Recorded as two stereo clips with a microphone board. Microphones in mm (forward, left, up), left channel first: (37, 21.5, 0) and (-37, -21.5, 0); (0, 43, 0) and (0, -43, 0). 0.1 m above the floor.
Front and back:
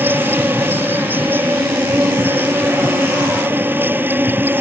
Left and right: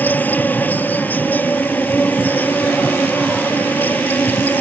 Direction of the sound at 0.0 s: 150° left.